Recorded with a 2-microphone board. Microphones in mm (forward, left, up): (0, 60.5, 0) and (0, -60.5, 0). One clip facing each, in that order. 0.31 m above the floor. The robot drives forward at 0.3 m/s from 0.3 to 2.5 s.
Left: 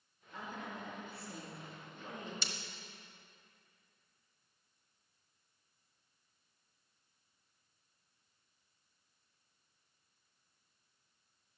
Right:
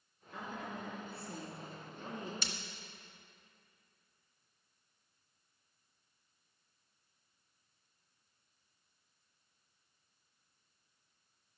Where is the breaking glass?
50° right (ahead or behind), 0.8 m.